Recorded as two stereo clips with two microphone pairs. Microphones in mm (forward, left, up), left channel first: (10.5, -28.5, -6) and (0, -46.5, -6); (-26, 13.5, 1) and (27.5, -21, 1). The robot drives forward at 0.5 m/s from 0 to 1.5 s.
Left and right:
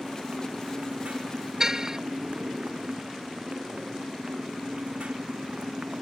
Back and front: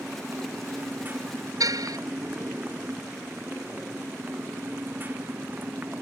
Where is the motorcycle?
90° right; by 6.0 s 95° right.